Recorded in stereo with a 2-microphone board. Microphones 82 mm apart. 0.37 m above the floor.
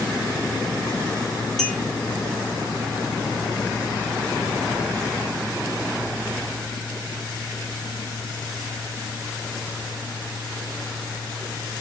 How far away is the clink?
About 1.4 m.